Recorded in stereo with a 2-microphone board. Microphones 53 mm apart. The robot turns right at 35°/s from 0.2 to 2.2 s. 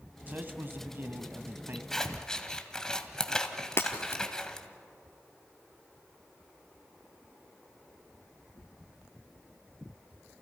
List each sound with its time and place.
0.3 s a man speaking: 125° right, 1.2 m; by 1.8 s 70° right, 1.2 m
1.9 s scissors: 10° left (ahead or behind), 1.5 m; by 4.7 s 15° left (ahead or behind), 1.5 m
3.8 s breaking glass: 50° left (ahead or behind), 2 m